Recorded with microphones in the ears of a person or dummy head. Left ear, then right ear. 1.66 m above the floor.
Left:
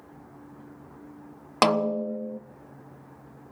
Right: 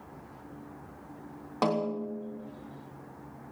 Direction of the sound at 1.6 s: 55° left (ahead or behind).